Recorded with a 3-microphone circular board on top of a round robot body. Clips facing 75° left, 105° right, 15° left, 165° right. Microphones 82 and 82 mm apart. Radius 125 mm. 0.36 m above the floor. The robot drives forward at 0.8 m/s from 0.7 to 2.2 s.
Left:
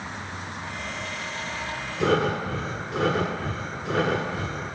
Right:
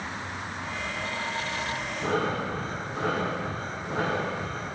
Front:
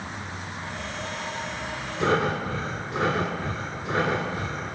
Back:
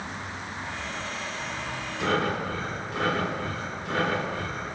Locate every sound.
2.0 s breathing: 75° left, 1.3 m; by 4.8 s 80° left, 1.3 m